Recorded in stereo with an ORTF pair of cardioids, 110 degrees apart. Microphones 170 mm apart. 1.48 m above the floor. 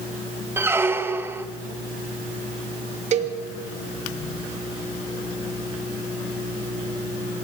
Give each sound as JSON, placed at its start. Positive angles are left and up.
{"t": 0.6, "sound": "a squeak", "azimuth_deg": -15, "distance_m": 1.3}
{"t": 3.1, "sound": "a cowbell", "azimuth_deg": -45, "distance_m": 2.5}